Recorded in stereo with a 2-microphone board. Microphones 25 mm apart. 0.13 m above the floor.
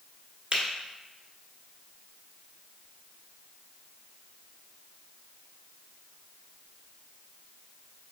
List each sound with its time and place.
0.5 s a finger snap: 45° right (ahead or behind), 1.4 m